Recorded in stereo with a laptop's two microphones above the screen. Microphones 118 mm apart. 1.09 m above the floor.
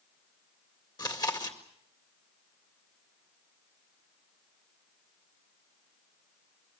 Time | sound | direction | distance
1.0 | chewing | 35° left (ahead or behind) | 2.0 m